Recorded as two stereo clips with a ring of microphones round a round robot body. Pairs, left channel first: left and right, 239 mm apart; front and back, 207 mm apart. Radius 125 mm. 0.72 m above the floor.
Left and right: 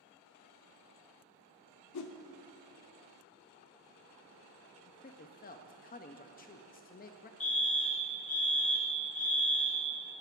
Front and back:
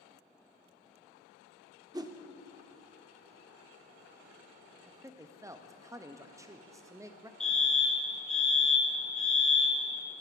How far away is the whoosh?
About 0.7 m.